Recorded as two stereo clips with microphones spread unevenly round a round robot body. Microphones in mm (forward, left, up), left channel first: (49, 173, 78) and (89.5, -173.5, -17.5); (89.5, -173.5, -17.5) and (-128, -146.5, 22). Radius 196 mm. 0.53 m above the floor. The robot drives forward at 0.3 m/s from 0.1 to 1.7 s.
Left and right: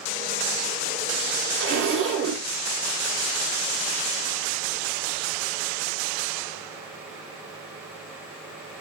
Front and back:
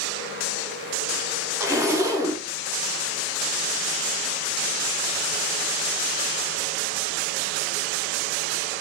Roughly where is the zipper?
Right.